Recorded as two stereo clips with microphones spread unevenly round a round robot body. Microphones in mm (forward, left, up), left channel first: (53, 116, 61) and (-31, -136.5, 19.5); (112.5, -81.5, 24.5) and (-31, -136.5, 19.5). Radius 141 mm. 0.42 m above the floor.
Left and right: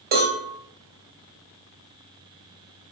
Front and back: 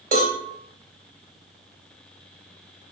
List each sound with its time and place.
0.1 s a cowbell: 155° right, 0.8 m